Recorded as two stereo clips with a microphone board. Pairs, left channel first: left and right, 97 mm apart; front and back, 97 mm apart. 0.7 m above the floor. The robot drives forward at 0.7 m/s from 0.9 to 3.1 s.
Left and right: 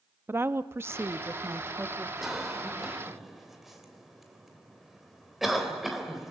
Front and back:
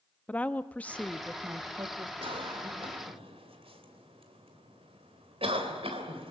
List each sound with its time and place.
0.3 s a woman speaking: 60° right, 0.7 m; by 2.1 s 155° right, 1.0 m
2.2 s a cough: straight behind, 3 m